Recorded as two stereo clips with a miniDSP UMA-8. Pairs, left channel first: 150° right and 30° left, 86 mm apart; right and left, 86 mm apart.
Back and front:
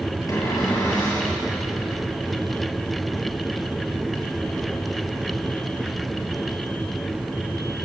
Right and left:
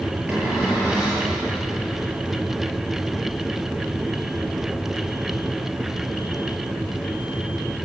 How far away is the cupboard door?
About 9.5 m.